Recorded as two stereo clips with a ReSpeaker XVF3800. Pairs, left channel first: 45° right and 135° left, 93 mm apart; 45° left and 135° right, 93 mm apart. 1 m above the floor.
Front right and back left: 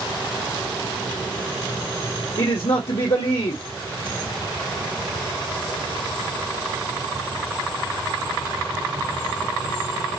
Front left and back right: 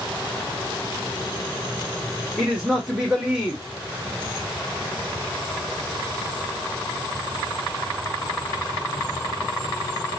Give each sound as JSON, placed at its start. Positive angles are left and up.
{"t": 2.4, "sound": "a man speaking", "azimuth_deg": -55, "distance_m": 1.4}